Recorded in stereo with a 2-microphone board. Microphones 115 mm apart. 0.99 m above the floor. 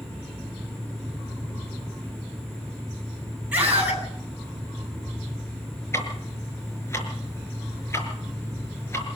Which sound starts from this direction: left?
Ticking, at 5.9 s.